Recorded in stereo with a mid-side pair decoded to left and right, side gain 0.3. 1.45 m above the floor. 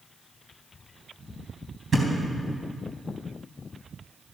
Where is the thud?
45° right, 3.5 m.